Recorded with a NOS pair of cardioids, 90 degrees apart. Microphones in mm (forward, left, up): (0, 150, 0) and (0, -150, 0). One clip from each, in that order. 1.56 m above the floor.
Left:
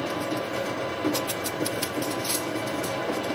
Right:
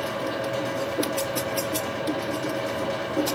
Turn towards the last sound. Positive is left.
turn(degrees=-15)